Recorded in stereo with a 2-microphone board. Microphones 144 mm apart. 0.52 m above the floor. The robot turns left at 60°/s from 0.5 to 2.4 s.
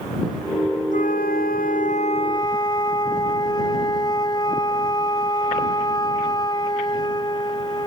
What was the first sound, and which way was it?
A flute, 115° left.